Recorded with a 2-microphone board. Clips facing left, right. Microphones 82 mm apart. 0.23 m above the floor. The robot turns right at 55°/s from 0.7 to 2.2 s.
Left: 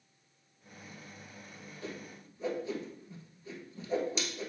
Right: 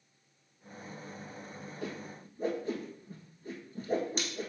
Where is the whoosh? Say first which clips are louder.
Right 2 dB; 70° right (ahead or behind), 1.4 m; by 4.5 s 50° right (ahead or behind), 1.4 m.